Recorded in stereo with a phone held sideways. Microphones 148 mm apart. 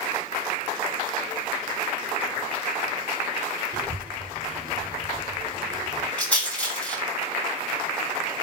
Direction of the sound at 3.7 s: 75° right (ahead or behind).